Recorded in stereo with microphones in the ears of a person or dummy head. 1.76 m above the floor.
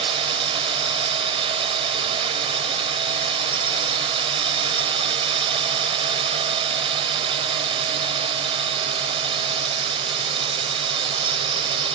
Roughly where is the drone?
Right.